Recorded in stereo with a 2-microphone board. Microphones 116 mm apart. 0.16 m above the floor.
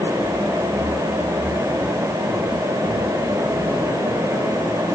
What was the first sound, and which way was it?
Only background noise.